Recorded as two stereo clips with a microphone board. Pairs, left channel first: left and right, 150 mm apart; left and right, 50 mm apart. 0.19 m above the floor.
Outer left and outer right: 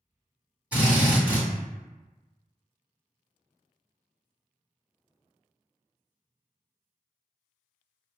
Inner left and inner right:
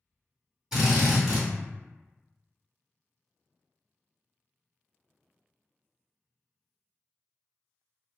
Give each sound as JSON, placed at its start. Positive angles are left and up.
{"t": 0.7, "sound": "a drill", "side_deg": -10, "distance_m": 1.6}